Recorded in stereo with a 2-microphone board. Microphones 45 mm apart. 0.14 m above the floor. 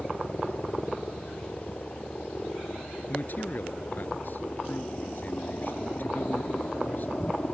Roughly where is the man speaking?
Left.